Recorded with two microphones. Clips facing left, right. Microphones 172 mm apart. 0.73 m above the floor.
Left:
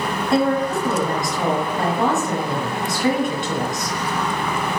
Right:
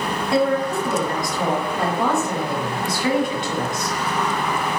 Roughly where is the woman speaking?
Left.